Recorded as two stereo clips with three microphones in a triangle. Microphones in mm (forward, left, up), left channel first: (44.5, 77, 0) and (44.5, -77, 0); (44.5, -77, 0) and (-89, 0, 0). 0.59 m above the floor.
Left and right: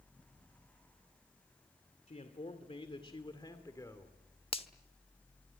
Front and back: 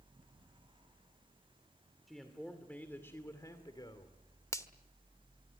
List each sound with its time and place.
2.1 s a man speaking: 60° left, 2 m; by 4.2 s 20° left, 2 m
4.5 s a finger snap: 35° left, 1.1 m